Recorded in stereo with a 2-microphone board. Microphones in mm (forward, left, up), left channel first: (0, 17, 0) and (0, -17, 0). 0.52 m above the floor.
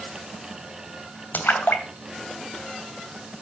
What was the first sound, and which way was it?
A splash, 70° left (ahead or behind).